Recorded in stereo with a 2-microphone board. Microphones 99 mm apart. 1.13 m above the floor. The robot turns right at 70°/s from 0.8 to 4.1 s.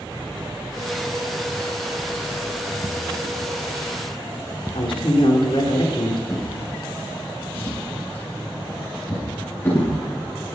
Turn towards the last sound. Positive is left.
turn(degrees=20)  # may be behind; listen again after turning